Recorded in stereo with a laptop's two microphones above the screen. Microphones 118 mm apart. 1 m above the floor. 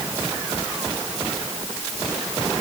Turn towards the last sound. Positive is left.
No sound to turn to.